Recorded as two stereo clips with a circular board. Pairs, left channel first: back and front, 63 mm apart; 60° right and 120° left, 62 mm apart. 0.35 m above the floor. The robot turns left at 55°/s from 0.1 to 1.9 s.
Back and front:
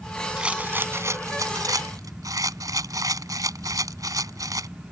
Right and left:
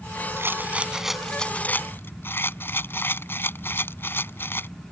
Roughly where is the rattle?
Left.